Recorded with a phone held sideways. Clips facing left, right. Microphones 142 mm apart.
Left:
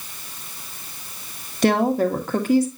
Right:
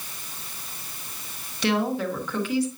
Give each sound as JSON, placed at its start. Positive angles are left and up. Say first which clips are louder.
{"t": 1.6, "sound": "a woman speaking", "louder": "left 6 dB", "side_deg": 50, "distance_m": 1.7}